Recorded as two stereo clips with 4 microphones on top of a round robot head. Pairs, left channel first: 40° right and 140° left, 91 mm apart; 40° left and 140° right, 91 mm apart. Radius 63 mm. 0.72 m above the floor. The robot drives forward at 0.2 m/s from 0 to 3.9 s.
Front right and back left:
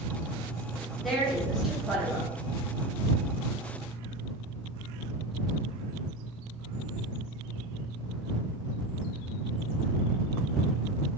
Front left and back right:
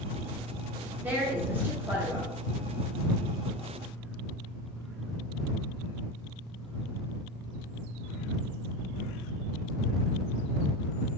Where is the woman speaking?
125° right, 1.1 m; by 2.3 s 150° right, 1.1 m.